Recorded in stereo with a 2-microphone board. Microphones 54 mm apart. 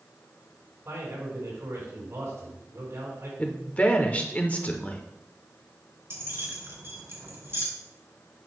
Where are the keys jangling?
50° right (ahead or behind), 2.0 m.